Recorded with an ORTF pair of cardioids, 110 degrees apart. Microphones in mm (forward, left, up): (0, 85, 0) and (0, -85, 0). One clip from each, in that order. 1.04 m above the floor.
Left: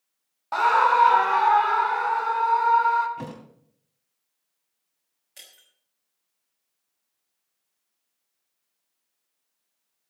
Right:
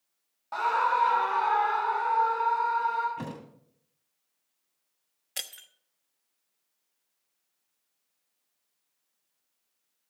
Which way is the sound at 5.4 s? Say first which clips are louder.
Right 10 dB; 65° right.